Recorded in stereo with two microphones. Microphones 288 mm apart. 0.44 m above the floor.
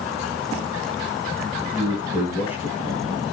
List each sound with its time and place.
1.6 s a man speaking: 10° right (ahead or behind), 6.5 m